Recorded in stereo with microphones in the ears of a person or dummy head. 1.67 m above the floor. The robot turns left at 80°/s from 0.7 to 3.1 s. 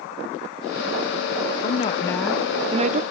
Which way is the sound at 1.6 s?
55° left.